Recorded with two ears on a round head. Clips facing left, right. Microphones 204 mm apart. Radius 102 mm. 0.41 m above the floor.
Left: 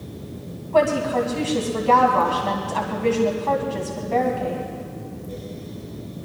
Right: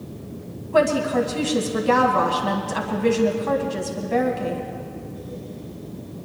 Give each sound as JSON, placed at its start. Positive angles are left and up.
{"t": 0.7, "sound": "a woman speaking", "side_deg": -20, "distance_m": 2.5}